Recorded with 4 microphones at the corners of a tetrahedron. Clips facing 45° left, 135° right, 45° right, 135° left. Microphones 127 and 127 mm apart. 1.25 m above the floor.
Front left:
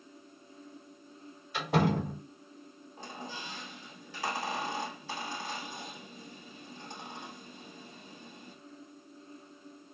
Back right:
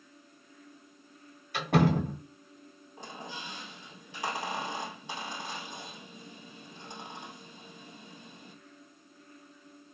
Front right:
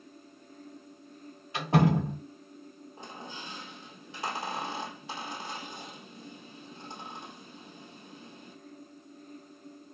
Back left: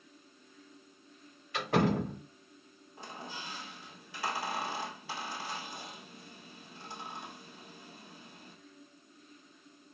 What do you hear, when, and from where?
1.5 s a door slam: 110° right, 1.8 m
3.0 s a squeak: 85° right, 1.4 m